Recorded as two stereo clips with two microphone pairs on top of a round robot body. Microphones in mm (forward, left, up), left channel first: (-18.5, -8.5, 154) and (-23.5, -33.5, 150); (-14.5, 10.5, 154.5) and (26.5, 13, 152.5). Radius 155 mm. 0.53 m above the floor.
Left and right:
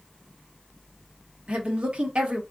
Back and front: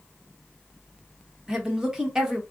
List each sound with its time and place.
1.5 s a woman speaking: 70° right, 1.5 m